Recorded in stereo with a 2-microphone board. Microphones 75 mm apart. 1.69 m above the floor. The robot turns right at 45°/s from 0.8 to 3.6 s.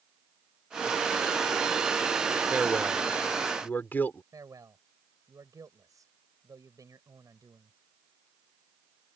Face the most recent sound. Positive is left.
turn(degrees=-50)  # may be behind; listen again after turning